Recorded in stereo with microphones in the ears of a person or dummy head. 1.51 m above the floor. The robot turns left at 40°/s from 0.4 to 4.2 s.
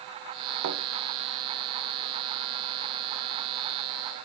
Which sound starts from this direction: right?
A thud, at 0.6 s.